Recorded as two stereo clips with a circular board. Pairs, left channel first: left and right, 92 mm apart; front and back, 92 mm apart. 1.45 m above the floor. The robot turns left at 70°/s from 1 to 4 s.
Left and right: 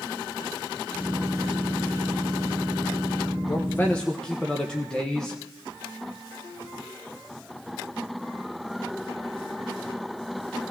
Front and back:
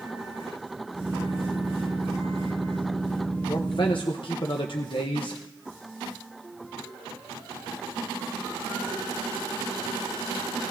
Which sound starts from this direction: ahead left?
A man speaking, at 3.5 s.